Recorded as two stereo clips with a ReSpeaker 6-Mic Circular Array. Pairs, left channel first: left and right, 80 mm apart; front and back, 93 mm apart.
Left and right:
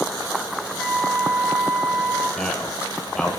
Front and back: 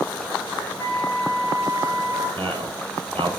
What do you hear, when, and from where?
0.8 s a flute: 10° left, 2.5 m
2.4 s a man speaking: 170° left, 4 m